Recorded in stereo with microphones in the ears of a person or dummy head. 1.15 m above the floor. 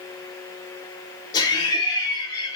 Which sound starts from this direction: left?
Laughter, at 1.3 s.